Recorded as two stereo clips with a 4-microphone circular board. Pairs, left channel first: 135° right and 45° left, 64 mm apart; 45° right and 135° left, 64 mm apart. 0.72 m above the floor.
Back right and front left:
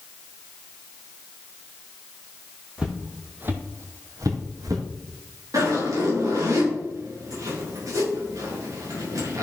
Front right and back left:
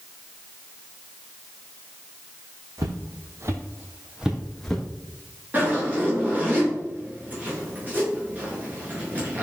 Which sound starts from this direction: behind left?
Footsteps, at 2.8 s.